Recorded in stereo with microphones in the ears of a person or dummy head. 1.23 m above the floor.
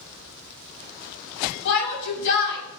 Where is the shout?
65° left (ahead or behind), 7.5 m.